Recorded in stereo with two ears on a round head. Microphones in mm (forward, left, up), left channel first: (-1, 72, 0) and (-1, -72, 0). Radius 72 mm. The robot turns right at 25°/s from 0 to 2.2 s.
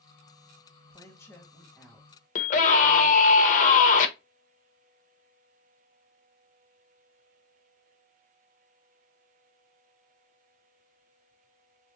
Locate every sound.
0.9 s a woman speaking: 155° left, 1.1 m; by 3.4 s 175° right, 1.1 m
2.4 s a scream: 50° left (ahead or behind), 1.0 m